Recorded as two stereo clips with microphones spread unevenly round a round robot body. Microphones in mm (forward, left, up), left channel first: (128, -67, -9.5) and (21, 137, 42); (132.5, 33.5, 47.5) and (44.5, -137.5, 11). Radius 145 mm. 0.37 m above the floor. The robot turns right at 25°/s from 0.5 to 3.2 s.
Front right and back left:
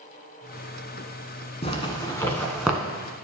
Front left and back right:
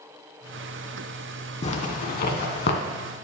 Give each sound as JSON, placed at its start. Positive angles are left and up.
{"t": 1.6, "sound": "a zipper", "azimuth_deg": 5, "distance_m": 1.3}